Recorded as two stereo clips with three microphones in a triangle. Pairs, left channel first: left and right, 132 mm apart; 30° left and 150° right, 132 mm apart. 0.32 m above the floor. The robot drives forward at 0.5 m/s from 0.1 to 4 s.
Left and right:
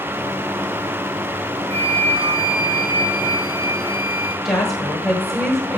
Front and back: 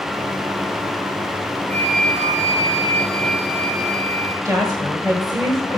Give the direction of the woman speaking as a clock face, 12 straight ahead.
6 o'clock.